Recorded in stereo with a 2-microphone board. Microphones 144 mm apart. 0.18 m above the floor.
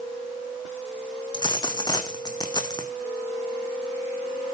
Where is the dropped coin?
30° left (ahead or behind), 1.6 m.